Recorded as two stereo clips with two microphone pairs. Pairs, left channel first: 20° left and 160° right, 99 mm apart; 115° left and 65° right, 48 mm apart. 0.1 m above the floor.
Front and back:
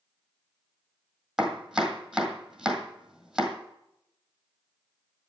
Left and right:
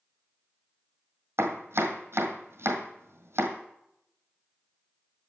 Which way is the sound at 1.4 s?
75° right.